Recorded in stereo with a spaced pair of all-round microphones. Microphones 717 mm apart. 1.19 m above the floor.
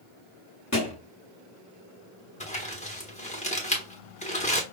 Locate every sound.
0.7 s a thud: 20° left (ahead or behind), 1.3 m
2.4 s crumpling: 10° left (ahead or behind), 1.2 m